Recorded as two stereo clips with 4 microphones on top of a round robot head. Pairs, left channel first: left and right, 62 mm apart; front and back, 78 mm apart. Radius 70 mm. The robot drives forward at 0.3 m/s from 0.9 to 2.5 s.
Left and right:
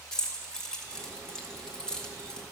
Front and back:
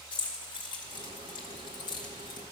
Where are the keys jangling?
10° left, 2.0 m; by 2.4 s 15° left, 1.6 m.